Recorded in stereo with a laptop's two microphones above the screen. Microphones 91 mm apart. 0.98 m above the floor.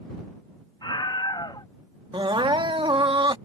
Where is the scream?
60° left (ahead or behind).